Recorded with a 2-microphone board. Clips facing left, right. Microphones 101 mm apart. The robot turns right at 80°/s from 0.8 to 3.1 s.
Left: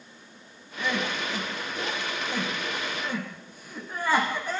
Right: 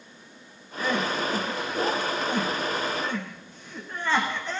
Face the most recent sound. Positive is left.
turn(degrees=10)  # may be behind; listen again after turning